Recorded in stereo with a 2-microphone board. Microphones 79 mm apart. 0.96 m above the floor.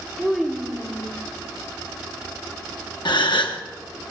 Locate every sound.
0.2 s a child speaking: 10° right (ahead or behind), 2 m; by 1.2 s 5° left (ahead or behind), 2.5 m
3.0 s a gasp: 75° left (ahead or behind), 1.0 m